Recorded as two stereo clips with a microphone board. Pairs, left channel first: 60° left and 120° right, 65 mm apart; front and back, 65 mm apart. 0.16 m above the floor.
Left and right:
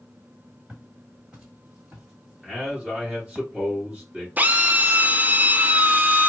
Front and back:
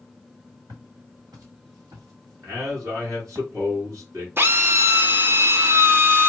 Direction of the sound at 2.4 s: 165° left.